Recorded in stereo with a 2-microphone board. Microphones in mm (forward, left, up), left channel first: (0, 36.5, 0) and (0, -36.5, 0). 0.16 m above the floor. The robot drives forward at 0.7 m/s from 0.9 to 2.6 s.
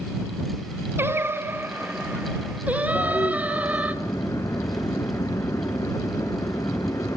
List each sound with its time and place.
1.0 s singing: 35° right (ahead or behind), 0.9 m; by 4.0 s 20° right (ahead or behind), 1.4 m
3.0 s a toilet flushing: 50° left (ahead or behind), 2.5 m